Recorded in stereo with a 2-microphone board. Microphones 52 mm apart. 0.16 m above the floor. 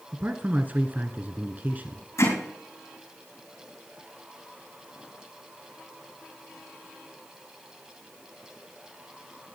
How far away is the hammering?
About 5.5 m.